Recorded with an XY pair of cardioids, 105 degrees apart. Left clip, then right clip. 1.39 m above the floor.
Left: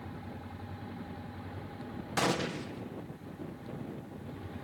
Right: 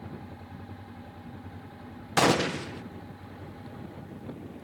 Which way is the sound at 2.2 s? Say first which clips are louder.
Right 8 dB; 50° right.